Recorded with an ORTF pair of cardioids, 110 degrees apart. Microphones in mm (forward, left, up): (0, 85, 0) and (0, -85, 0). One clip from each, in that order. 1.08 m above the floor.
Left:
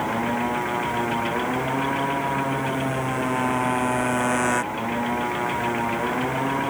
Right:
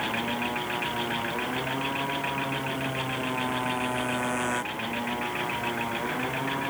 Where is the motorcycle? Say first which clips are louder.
Left 4 dB; 45° left.